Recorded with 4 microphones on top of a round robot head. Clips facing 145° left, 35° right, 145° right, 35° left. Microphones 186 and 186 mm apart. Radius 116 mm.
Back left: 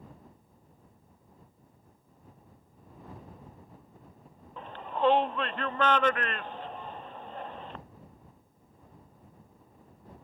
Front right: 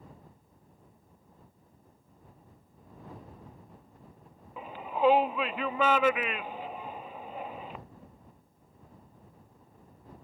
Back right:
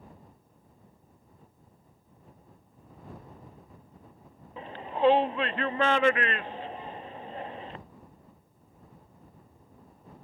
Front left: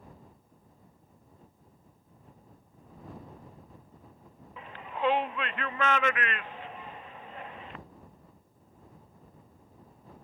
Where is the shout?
115° right.